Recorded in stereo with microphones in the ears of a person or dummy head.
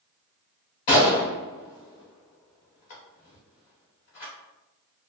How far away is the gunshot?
About 0.8 m.